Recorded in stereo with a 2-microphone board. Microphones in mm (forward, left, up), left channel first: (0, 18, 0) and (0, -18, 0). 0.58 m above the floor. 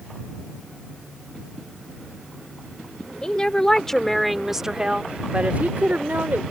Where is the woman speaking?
25° left (ahead or behind); by 6.4 s 65° right (ahead or behind).